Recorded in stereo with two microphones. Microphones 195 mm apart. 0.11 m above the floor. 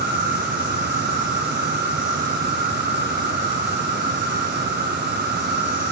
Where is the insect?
10° right (ahead or behind), 4 m.